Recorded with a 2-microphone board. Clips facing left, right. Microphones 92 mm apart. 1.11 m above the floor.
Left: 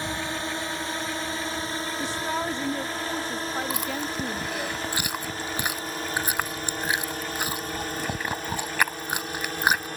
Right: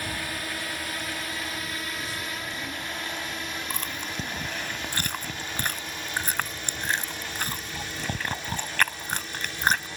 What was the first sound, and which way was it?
A drone, 25° left (ahead or behind).